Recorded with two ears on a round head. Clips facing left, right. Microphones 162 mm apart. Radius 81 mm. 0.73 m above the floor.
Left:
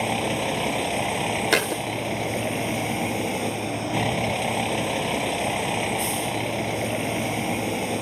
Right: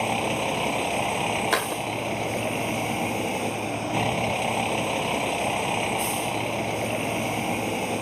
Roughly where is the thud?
Left.